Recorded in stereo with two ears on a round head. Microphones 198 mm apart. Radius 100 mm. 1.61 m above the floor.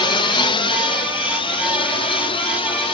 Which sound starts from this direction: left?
A drone, at 0.0 s.